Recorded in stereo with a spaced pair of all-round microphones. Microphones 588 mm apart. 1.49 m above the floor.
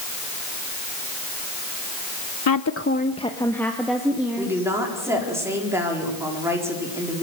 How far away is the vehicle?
No vehicle in this recording.